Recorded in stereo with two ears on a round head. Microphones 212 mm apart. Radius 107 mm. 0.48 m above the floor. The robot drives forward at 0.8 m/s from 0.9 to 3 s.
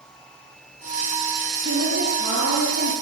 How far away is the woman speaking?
About 9 m.